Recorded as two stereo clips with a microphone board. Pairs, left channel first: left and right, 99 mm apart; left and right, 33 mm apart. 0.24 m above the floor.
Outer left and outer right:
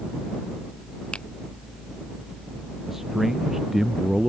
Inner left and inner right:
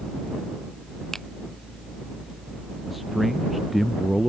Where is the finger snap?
10° left (ahead or behind).